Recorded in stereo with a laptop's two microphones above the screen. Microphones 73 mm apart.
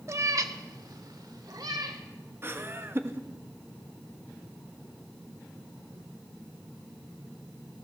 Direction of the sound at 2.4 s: 35° right (ahead or behind).